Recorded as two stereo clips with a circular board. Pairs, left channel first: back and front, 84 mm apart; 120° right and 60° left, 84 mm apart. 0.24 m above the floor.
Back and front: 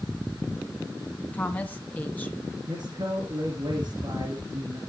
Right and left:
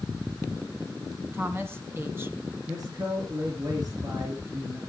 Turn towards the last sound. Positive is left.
turn(degrees=20)